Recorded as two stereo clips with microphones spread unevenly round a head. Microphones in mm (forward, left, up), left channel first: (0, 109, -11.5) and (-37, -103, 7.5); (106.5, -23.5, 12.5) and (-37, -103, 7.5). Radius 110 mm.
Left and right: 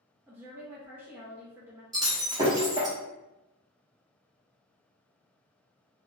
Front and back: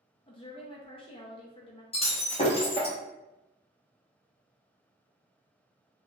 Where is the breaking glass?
25° right, 1.1 m.